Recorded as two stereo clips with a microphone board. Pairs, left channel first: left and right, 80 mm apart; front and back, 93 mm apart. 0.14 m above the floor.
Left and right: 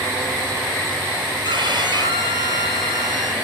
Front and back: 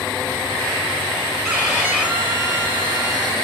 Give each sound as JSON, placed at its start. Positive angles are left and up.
{"t": 1.4, "sound": "a violin", "azimuth_deg": -100, "distance_m": 2.5}